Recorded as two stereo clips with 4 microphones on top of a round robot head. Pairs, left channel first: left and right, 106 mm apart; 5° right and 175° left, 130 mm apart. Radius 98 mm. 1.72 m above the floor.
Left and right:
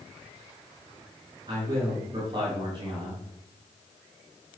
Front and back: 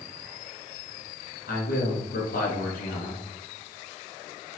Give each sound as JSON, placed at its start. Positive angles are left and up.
{"t": 1.5, "sound": "a man speaking", "azimuth_deg": -30, "distance_m": 4.0}